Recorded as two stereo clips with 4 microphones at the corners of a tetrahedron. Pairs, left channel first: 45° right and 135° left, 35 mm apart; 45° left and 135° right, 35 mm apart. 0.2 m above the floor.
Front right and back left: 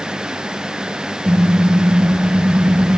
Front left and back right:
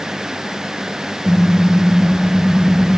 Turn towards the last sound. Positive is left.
turn(degrees=145)